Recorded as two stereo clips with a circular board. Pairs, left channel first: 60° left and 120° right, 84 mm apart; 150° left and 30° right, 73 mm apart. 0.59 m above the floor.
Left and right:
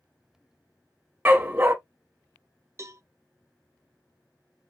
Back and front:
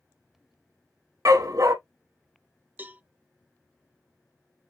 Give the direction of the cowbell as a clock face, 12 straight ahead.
3 o'clock.